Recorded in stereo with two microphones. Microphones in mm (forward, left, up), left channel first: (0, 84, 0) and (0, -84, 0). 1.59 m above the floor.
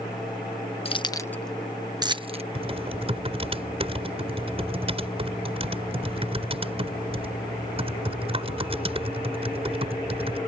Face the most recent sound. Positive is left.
turn(degrees=-35)  # may be behind; listen again after turning